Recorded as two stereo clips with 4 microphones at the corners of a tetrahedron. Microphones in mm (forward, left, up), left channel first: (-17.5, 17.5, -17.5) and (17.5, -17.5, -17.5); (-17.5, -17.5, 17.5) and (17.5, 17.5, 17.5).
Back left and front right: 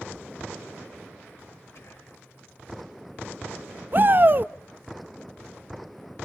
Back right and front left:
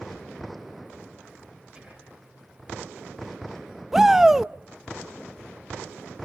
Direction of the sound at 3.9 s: 35° right.